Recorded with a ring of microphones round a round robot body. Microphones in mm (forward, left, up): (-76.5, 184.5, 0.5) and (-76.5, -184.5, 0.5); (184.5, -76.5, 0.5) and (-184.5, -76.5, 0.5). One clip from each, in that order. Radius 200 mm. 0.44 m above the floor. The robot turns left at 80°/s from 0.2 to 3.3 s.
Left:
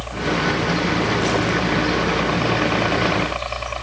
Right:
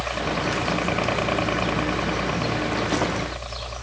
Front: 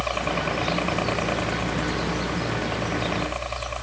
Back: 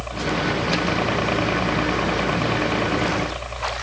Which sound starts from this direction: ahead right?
A helicopter, at 0.0 s.